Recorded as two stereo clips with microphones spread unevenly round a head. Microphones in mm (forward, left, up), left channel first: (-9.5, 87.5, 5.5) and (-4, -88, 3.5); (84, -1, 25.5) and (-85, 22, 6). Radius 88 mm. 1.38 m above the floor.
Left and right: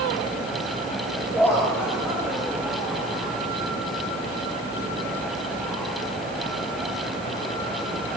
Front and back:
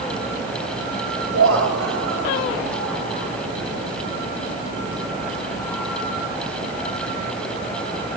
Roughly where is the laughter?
Behind.